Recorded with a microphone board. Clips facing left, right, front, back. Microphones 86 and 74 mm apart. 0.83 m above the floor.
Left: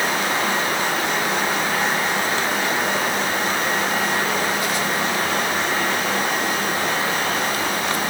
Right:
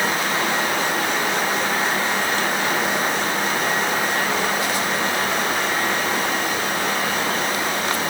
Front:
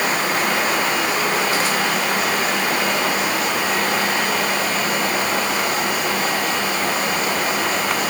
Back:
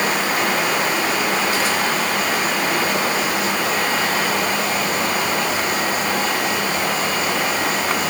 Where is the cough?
No cough in this recording.